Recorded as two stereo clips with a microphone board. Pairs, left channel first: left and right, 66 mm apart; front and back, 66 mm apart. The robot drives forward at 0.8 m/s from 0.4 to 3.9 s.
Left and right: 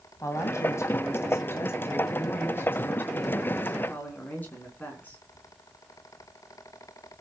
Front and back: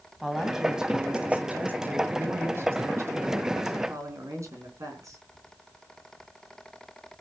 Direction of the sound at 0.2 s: 95° left.